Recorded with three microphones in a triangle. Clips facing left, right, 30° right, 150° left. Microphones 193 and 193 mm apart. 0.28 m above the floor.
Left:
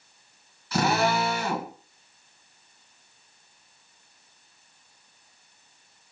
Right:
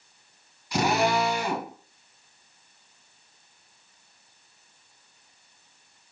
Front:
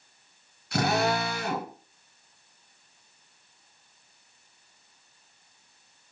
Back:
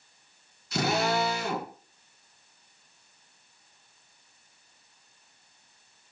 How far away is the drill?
About 2.5 m.